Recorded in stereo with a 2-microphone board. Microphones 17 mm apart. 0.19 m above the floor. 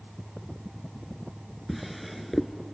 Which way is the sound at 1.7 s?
Centre (ahead or behind).